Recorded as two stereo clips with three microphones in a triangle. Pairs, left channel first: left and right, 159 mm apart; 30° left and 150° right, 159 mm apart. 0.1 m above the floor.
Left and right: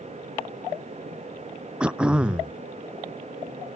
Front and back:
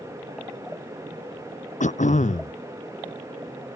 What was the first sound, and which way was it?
Throat clearing, 5° right.